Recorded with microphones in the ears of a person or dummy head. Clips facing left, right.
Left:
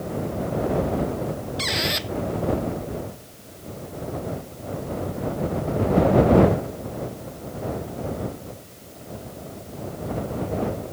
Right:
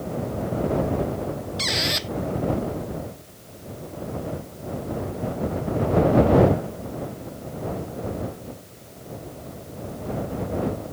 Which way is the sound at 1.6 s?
Centre (ahead or behind).